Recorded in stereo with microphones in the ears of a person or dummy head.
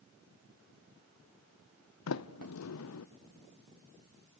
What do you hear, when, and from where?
2.1 s a sliding door: 75° left (ahead or behind), 0.7 m